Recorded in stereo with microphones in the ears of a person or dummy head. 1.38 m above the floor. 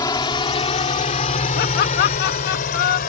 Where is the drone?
20° left (ahead or behind); by 3.1 s 45° left (ahead or behind).